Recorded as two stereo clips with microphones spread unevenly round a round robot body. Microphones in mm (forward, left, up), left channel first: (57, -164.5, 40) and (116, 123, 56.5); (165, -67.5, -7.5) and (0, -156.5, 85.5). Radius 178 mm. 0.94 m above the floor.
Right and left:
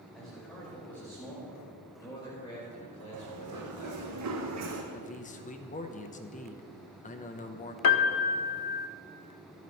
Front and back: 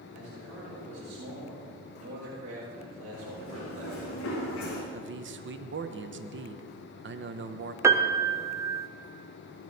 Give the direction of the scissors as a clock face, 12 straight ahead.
I don't hear scissors.